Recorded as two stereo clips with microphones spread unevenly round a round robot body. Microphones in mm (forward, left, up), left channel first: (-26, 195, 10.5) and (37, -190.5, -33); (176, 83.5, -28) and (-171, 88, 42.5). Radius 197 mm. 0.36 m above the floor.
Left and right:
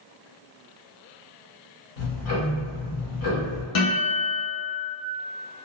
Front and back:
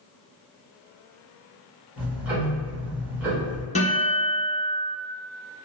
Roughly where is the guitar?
Left.